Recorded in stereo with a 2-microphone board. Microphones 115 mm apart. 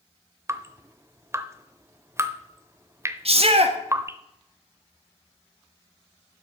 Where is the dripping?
25° right (ahead or behind), 0.6 m.